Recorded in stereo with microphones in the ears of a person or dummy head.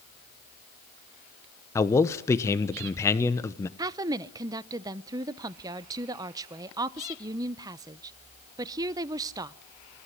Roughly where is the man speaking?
Centre.